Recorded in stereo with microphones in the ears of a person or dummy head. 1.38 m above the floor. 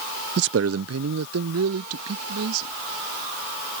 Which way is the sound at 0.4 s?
45° right (ahead or behind).